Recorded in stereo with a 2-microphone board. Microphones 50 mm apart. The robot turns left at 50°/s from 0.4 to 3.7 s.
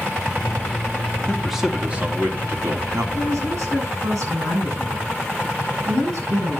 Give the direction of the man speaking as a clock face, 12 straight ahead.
12 o'clock.